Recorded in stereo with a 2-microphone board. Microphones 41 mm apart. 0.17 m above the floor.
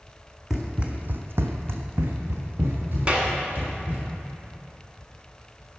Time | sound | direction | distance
0.5 | running footsteps | 10° right (ahead or behind) | 0.8 m
3.1 | a clap | 30° right (ahead or behind) | 1.0 m